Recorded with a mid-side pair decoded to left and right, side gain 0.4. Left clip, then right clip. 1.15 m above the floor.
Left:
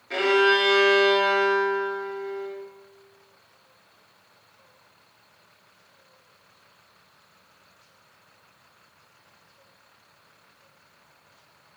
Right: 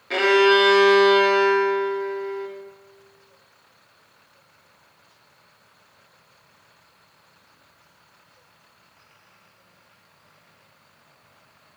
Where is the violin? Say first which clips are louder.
Right 3 dB; 50° right, 0.9 m.